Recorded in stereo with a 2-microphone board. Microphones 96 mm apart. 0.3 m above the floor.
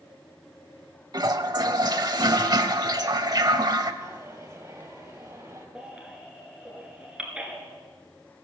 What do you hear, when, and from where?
1.1 s a toilet flushing: 45° right (ahead or behind), 0.7 m
4.0 s a dropped coin: 35° right (ahead or behind), 3 m
5.8 s a baby crying: 10° right (ahead or behind), 2.0 m